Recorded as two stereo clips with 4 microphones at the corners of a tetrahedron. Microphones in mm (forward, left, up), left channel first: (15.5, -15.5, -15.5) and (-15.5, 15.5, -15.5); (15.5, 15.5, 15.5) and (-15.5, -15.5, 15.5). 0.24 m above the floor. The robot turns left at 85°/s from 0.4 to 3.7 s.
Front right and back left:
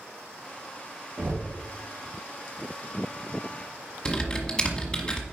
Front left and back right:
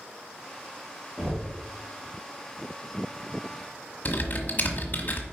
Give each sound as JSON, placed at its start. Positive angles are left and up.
{"t": 1.2, "sound": "knocking", "azimuth_deg": 135, "distance_m": 3.5}
{"t": 4.0, "sound": "typing on a keyboard", "azimuth_deg": 15, "distance_m": 1.2}